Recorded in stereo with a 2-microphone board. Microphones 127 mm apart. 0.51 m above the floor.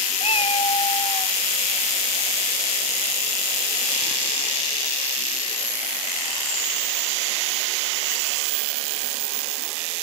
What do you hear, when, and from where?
0.2 s a cat meowing: 60° left (ahead or behind); by 1.4 s 40° left (ahead or behind)